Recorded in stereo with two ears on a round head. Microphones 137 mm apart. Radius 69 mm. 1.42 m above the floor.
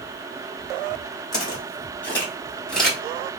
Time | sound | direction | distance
1.3 | footsteps | 25° left (ahead or behind) | 1.5 m